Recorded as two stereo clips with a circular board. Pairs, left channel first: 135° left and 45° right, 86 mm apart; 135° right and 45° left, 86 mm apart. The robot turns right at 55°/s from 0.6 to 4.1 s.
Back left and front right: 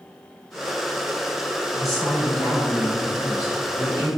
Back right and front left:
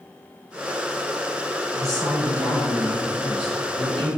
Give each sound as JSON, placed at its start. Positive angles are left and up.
{"t": 1.7, "sound": "a woman speaking", "azimuth_deg": 35, "distance_m": 1.7}